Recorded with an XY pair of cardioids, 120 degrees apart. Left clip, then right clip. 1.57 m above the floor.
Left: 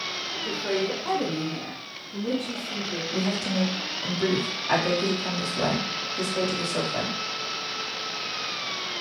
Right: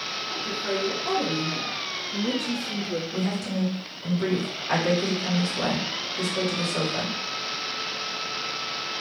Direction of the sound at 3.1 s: 10° left.